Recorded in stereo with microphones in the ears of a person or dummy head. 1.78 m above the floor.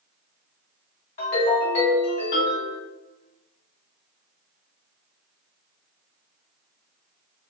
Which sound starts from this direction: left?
A ringtone, at 1.2 s.